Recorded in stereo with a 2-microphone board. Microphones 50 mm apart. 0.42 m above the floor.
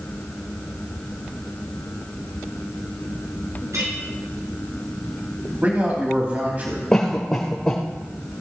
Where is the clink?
80° right, 3 m.